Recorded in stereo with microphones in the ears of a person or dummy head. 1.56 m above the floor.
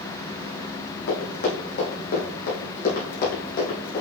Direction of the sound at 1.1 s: 60° left (ahead or behind).